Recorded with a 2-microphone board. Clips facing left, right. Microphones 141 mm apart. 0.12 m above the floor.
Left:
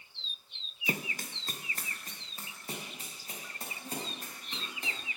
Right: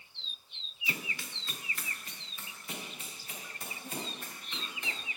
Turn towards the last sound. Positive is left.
turn(degrees=35)  # may be behind; listen again after turning